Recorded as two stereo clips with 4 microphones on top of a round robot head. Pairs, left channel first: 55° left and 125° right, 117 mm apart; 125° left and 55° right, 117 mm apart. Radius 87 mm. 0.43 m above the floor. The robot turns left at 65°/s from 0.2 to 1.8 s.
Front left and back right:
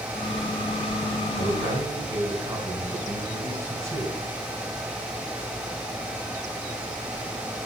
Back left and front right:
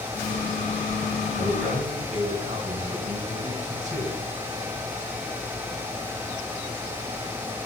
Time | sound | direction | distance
1.3 | a man speaking | 25° right | 5 m